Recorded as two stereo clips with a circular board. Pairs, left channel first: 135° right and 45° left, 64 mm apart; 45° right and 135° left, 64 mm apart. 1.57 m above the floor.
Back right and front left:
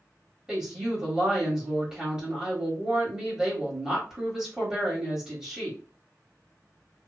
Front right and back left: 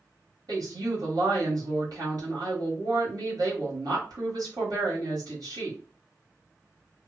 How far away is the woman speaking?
About 1.4 m.